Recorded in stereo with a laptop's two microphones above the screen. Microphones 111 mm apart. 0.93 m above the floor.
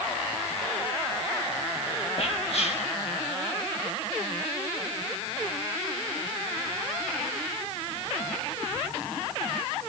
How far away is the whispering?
About 1.6 m.